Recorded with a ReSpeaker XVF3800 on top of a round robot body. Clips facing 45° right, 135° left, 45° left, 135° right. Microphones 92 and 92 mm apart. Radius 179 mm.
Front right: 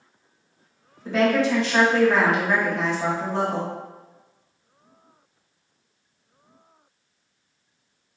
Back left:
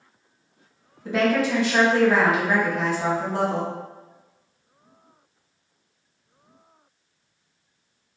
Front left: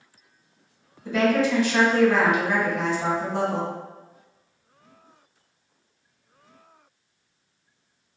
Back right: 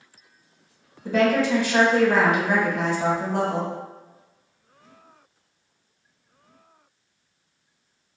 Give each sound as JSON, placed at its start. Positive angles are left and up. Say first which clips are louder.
{"t": 1.1, "sound": "a woman speaking", "louder": "front right 1 dB, back right 1 dB", "azimuth_deg": -145, "distance_m": 1.7}